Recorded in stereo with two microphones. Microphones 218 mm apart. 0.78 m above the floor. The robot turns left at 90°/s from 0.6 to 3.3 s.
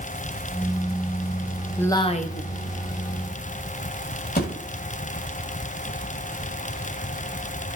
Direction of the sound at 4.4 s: 45° left (ahead or behind).